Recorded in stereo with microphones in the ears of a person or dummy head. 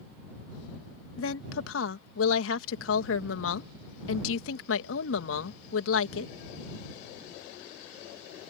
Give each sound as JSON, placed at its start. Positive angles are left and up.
{"t": 1.2, "sound": "a woman speaking", "side_deg": 80}